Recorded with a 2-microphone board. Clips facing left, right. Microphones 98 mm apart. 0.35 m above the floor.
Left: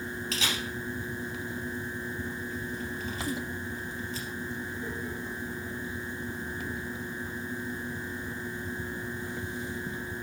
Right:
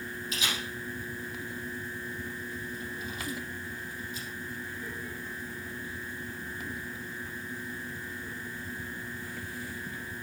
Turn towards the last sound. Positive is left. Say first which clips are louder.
# left 1 dB
turn(degrees=85)